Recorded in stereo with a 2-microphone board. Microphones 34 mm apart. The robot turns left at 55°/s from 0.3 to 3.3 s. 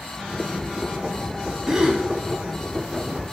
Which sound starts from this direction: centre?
A gasp, at 1.7 s.